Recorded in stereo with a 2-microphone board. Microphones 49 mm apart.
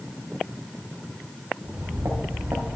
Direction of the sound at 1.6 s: 70° right (ahead or behind).